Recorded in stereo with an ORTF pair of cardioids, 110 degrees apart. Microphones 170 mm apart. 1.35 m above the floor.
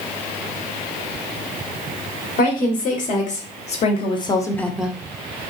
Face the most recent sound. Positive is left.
turn(degrees=-15)